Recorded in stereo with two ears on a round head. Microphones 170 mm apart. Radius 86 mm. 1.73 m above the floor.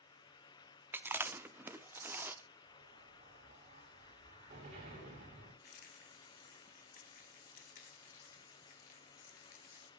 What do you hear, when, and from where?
0.9 s chewing: 10° right (ahead or behind), 0.8 m
2.7 s an explosion: 35° right (ahead or behind), 7.5 m
5.6 s a rattle: 45° left (ahead or behind), 2.5 m